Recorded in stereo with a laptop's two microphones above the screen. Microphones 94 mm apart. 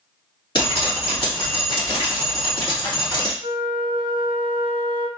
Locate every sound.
0.6 s dripping: 55° left (ahead or behind), 2.5 m
3.4 s a flute: 60° right (ahead or behind), 1.0 m